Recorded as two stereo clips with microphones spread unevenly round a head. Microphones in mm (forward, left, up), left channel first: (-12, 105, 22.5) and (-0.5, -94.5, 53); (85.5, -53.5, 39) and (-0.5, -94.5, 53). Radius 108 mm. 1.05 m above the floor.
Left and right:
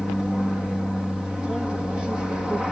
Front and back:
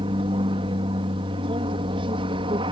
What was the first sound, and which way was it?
An aircraft, straight behind.